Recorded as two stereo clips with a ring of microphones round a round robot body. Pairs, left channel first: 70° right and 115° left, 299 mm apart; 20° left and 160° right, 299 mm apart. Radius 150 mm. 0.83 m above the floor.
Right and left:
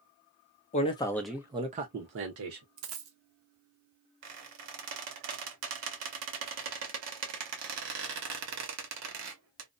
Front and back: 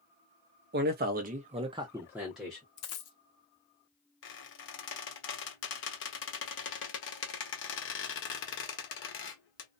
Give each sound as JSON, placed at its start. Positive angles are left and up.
{"t": 0.7, "sound": "a man speaking", "azimuth_deg": -120, "distance_m": 0.7}
{"t": 2.8, "sound": "a dropped coin", "azimuth_deg": 65, "distance_m": 0.7}
{"t": 4.2, "sound": "a squeak", "azimuth_deg": 75, "distance_m": 0.9}